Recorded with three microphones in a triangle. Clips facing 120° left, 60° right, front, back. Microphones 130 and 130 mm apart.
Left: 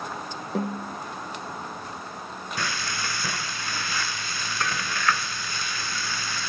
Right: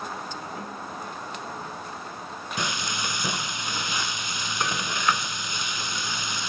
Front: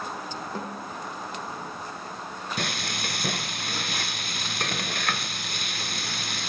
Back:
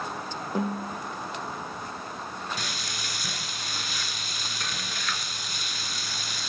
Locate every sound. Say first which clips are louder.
0.6 s a snare drum: left 7 dB, back 5 dB; 105° left, 4.5 m
2.6 s frying: right 1 dB, front 5 dB; 10° left, 1.0 m